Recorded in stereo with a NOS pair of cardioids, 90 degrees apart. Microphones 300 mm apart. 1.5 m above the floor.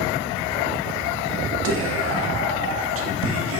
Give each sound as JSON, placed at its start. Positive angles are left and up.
{"t": 1.6, "sound": "whispering", "azimuth_deg": -50, "distance_m": 0.6}